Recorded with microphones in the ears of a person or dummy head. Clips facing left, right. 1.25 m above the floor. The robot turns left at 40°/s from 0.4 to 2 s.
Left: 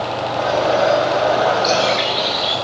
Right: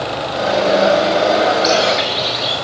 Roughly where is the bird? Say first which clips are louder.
Right 2 dB; centre.